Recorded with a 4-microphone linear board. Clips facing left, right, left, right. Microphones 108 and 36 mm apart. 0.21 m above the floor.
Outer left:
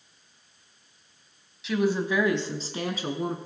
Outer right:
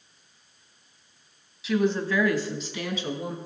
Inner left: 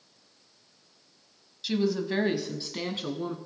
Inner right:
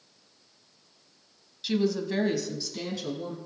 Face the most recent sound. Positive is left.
turn(degrees=50)  # may be behind; listen again after turning